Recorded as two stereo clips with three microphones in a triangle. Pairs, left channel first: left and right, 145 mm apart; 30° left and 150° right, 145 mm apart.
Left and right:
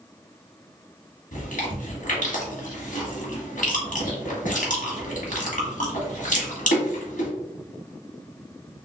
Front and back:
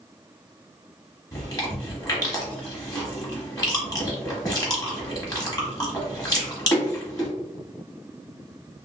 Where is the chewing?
90° left, 1.1 m.